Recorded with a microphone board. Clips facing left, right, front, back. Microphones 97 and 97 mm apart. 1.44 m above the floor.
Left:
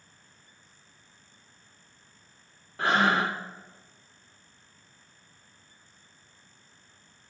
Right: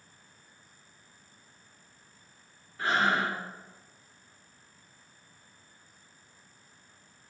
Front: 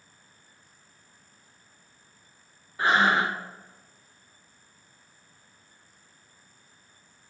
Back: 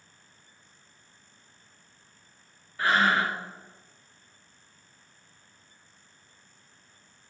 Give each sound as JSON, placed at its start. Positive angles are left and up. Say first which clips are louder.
{"t": 2.8, "sound": "breathing", "louder": "left 3 dB, front 2 dB", "azimuth_deg": 70, "distance_m": 0.8}